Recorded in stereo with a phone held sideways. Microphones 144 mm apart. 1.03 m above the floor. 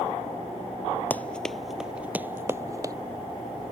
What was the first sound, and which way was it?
Running footsteps, 10° left (ahead or behind).